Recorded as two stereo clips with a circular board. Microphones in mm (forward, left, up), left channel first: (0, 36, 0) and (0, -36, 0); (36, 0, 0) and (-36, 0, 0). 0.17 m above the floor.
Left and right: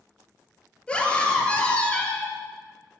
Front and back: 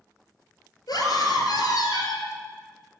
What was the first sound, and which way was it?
A scream, 15° left.